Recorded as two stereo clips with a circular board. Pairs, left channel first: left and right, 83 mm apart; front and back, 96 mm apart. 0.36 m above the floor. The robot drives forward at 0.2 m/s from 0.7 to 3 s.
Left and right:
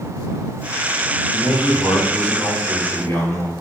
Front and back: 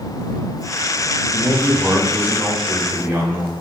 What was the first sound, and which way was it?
A man speaking, 110° left.